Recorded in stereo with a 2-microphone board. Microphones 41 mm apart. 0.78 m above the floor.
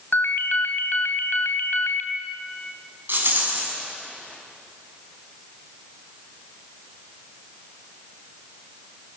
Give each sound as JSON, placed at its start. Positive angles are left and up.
{"t": 0.1, "sound": "a ringtone", "side_deg": 65, "distance_m": 2.0}
{"t": 3.1, "sound": "a rattle", "side_deg": -60, "distance_m": 6.5}